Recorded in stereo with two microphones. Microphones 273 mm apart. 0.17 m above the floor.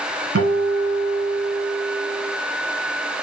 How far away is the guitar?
About 0.9 m.